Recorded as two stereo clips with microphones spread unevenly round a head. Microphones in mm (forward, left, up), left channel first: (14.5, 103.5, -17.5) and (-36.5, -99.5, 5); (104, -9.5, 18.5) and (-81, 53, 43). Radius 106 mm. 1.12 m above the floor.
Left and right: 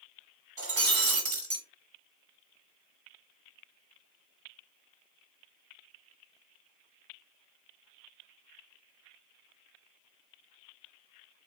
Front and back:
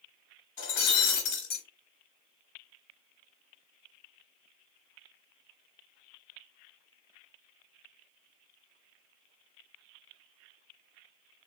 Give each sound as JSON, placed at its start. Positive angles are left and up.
{"t": 0.6, "sound": "breaking glass", "azimuth_deg": -65, "distance_m": 1.4}